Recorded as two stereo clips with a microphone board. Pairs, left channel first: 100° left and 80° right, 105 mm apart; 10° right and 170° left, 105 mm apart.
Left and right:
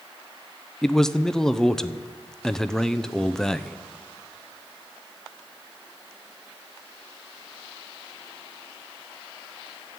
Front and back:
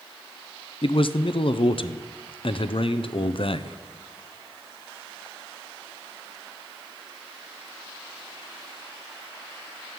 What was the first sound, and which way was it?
A man speaking, 15° left.